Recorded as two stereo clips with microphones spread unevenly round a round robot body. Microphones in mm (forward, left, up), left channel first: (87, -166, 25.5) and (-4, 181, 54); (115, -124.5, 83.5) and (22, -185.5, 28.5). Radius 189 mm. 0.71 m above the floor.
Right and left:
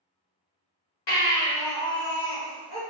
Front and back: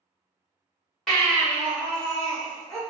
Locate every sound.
1.1 s a baby crying: 55° right, 1.4 m